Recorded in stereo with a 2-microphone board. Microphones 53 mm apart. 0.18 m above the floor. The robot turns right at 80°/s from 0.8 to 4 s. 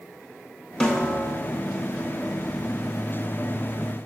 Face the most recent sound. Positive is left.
turn(degrees=-85)